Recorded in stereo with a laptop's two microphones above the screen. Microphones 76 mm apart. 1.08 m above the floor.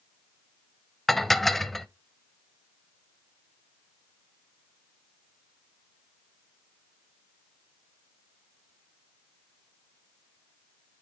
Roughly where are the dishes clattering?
Centre.